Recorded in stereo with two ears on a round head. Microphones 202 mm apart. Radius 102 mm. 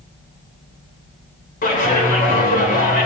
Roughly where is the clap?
Left.